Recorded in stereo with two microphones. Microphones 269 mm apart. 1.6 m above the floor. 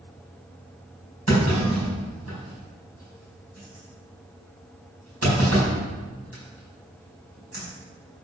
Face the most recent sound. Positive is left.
turn(degrees=-70)  # may be behind; listen again after turning